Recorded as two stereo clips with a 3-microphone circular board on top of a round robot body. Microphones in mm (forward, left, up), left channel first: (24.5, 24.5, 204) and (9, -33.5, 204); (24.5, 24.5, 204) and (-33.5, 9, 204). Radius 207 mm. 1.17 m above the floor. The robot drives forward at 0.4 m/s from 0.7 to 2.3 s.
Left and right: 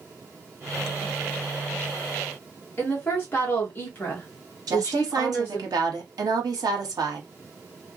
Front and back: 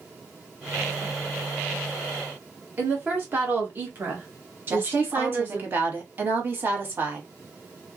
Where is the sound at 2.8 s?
135° left, 1.3 m.